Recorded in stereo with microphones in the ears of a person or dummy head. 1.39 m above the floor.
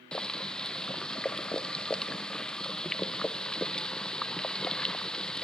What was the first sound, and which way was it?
Boiling, 5° left (ahead or behind).